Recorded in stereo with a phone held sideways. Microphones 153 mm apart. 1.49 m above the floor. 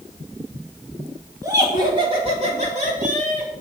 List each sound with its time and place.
1.4 s laughter: 25° right (ahead or behind), 3 m; by 3.5 s 60° right (ahead or behind), 3.5 m